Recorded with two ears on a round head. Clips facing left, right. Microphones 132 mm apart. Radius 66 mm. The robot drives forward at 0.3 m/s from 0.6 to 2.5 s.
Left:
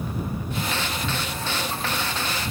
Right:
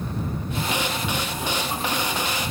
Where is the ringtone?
No ringtone in this recording.